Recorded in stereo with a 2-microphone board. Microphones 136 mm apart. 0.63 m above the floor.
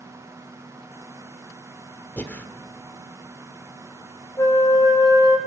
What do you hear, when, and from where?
2.2 s breathing: 15° left (ahead or behind), 1.6 m
4.4 s a flute: 25° left (ahead or behind), 3 m